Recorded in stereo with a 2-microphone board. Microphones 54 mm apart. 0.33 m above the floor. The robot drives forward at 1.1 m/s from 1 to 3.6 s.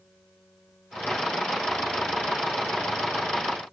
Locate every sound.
Only background noise.